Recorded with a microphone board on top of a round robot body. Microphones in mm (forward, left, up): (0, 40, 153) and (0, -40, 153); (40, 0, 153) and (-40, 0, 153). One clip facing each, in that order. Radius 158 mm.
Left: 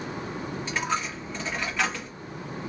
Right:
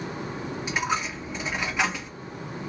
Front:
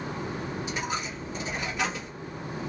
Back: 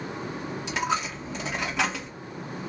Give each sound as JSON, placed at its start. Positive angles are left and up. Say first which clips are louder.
{"t": 0.7, "sound": "a dropped coin", "louder": "right 2 dB, back 9 dB", "azimuth_deg": -170, "distance_m": 1.0}